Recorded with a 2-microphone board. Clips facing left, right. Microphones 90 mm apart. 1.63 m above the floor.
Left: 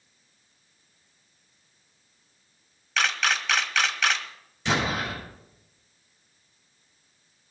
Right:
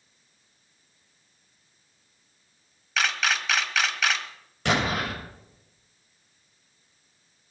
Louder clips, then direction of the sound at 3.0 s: Even; centre (ahead or behind).